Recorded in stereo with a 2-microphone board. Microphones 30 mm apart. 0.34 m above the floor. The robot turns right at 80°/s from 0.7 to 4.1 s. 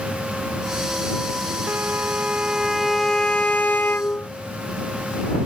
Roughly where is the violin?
Right.